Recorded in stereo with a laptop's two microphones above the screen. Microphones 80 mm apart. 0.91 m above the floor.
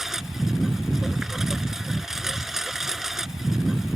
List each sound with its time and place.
0.0 s a lawn mower: 5° right (ahead or behind)